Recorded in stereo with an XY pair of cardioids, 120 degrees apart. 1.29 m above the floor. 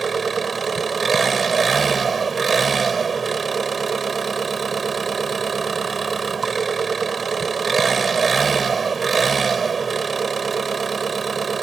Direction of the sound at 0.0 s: 25° right.